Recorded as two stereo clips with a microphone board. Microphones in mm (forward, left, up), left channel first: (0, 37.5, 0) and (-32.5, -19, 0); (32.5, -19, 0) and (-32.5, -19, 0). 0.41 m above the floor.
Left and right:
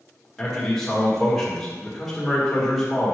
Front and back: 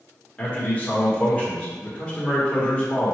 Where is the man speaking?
25° right, 1.1 m.